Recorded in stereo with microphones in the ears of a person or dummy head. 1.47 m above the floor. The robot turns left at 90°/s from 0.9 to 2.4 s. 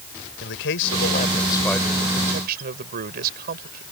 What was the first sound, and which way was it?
A man speaking, 80° left.